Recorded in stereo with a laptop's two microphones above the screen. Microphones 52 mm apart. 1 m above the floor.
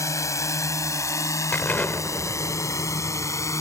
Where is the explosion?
35° left (ahead or behind).